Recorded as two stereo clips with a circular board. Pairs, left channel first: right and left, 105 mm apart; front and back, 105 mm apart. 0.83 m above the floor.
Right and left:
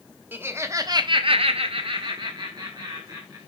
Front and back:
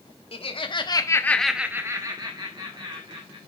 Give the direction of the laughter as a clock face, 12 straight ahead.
11 o'clock.